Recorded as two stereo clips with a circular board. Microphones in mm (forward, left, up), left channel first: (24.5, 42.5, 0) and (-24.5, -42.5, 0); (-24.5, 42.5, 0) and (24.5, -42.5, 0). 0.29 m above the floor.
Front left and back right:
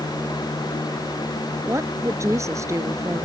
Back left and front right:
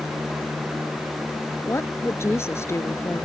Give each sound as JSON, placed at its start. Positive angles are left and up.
{"t": 1.7, "sound": "a woman speaking", "azimuth_deg": 180}